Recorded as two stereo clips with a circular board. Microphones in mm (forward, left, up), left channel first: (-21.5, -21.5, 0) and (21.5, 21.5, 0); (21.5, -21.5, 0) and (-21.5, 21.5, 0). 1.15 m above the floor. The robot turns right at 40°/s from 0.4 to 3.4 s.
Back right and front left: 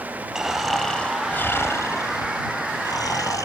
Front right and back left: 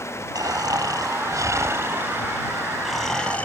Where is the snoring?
125° left; by 3.5 s 115° right.